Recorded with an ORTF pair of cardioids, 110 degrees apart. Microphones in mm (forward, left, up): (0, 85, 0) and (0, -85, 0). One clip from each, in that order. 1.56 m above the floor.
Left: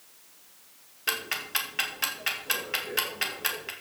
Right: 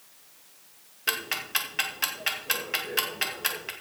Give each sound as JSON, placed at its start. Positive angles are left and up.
{"t": 1.1, "sound": "ticking", "azimuth_deg": -5, "distance_m": 2.5}